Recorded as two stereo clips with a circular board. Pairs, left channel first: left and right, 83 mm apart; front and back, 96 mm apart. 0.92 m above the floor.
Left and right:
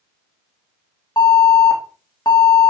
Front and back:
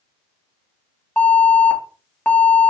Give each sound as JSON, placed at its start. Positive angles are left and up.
{"t": 1.2, "sound": "an alarm", "azimuth_deg": 70, "distance_m": 2.5}